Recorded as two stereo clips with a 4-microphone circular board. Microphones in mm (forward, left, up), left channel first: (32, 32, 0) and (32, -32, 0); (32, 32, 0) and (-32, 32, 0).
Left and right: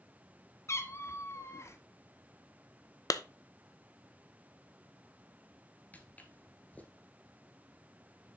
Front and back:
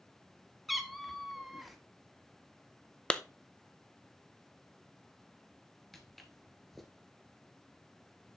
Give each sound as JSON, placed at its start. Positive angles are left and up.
{"t": 0.7, "sound": "a cat meowing", "azimuth_deg": 90, "distance_m": 1.0}
{"t": 3.1, "sound": "a clap", "azimuth_deg": 75, "distance_m": 0.7}
{"t": 5.9, "sound": "footsteps", "azimuth_deg": 85, "distance_m": 1.4}